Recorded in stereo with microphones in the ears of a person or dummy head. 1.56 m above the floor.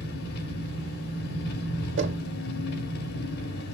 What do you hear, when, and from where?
0.0 s an engine running: 60° left (ahead or behind), 3.5 m
2.0 s knocking: 80° right, 2 m